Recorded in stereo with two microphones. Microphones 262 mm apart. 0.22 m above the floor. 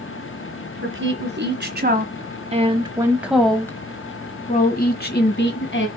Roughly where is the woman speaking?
Right.